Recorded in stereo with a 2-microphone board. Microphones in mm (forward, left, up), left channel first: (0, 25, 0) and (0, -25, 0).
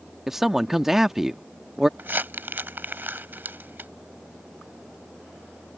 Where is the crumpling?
45° right (ahead or behind).